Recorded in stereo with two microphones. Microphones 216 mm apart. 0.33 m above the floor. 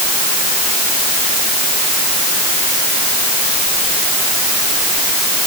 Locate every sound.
Only background noise.